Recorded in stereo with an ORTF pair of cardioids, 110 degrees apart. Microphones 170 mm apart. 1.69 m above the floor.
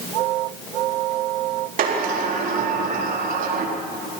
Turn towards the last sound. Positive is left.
turn(degrees=-55)